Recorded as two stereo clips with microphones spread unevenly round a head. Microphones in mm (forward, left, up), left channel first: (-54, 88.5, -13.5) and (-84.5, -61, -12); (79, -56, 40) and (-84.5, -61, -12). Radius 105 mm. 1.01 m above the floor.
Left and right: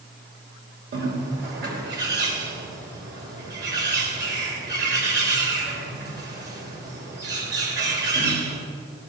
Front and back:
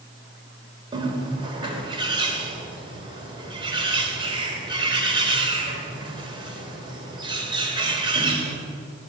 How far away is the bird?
About 3 m.